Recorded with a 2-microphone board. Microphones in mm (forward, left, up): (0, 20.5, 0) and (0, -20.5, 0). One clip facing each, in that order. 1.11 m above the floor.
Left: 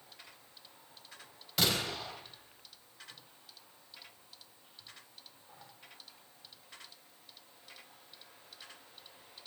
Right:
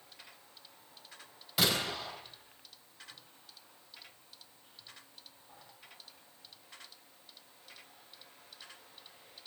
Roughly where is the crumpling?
No crumpling in this recording.